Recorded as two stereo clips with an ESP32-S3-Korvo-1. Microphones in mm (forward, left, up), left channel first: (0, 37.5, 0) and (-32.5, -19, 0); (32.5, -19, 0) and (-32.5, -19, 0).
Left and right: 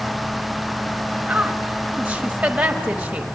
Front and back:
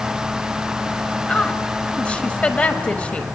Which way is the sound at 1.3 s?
60° right.